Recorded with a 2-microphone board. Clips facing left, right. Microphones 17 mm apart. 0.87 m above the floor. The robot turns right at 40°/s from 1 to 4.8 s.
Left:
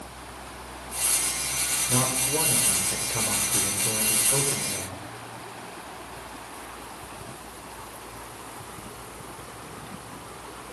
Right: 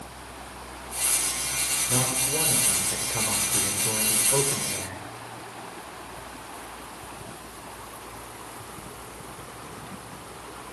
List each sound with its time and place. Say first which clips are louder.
1.9 s a man speaking: left 2 dB; 145° left, 3.5 m; by 5.0 s 100° right, 3.5 m